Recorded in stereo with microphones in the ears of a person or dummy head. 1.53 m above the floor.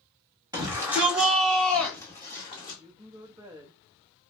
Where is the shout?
15° right (ahead or behind), 1.6 m; by 2.8 s 30° left (ahead or behind), 1.5 m.